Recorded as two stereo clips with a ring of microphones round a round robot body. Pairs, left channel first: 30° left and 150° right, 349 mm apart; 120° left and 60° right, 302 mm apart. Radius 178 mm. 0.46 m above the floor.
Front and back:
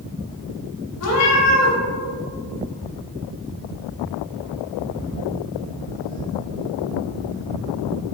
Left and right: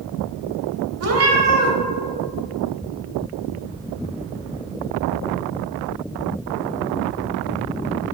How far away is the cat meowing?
About 0.9 m.